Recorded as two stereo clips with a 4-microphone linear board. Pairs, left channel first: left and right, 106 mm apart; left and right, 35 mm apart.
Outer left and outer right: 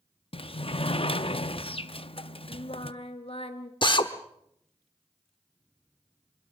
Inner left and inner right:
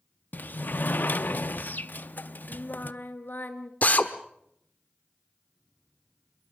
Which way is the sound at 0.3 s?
60° left (ahead or behind).